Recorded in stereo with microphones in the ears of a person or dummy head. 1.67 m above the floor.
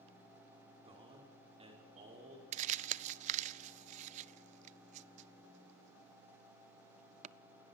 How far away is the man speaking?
About 5.5 m.